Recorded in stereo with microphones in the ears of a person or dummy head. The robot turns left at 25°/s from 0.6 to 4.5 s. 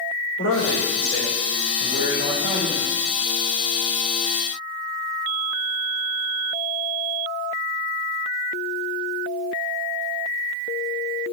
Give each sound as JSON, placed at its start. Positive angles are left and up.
{"t": 0.4, "sound": "a man speaking", "azimuth_deg": 95, "distance_m": 4.0}